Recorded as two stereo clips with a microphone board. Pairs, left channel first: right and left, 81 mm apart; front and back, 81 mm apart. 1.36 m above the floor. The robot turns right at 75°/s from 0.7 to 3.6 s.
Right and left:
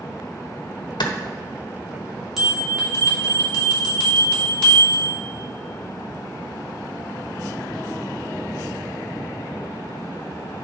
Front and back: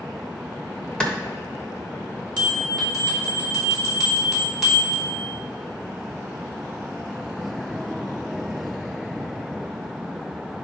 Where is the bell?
175° left, 3 m; by 5.2 s 90° right, 3 m.